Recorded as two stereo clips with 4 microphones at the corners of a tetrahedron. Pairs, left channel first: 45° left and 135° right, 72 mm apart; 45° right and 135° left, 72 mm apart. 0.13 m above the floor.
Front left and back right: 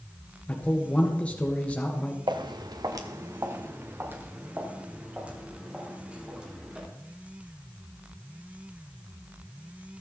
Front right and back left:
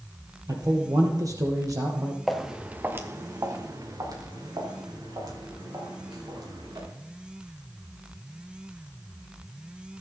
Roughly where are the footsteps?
Behind right.